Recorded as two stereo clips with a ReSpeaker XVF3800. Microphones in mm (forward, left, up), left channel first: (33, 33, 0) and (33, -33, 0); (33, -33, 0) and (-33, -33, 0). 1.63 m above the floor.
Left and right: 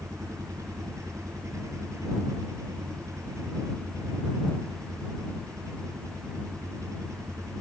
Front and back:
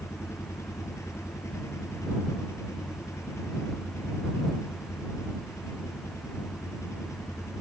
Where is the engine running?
50° right.